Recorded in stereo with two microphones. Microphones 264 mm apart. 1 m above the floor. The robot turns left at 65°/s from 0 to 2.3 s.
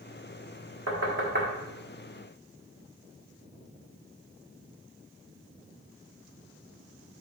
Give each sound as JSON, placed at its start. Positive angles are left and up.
{"t": 0.9, "sound": "knocking", "side_deg": -70, "distance_m": 1.6}